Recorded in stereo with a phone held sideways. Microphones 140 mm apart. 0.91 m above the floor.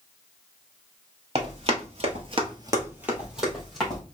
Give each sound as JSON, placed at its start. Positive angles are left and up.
{"t": 1.4, "sound": "running footsteps", "side_deg": -45, "distance_m": 1.8}